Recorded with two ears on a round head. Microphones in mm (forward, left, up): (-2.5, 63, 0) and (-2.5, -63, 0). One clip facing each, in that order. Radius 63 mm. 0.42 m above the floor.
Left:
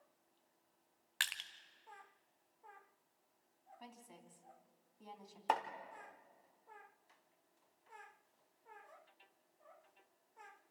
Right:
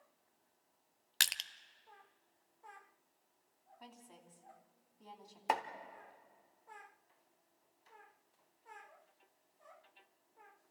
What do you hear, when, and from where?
1.2 s crushing: 45° right (ahead or behind), 0.7 m
3.8 s a woman speaking: 10° left (ahead or behind), 2.5 m
5.5 s chopping: 10° right (ahead or behind), 1.2 m